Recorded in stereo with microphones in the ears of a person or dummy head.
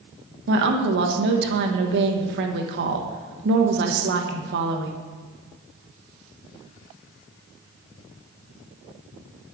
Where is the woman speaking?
65° right (ahead or behind), 1.1 m.